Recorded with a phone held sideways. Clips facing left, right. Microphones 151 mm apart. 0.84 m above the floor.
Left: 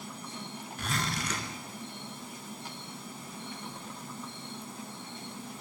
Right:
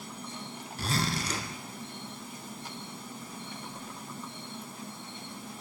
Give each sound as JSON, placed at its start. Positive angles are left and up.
{"t": 0.8, "sound": "a zipper", "side_deg": -35, "distance_m": 4.0}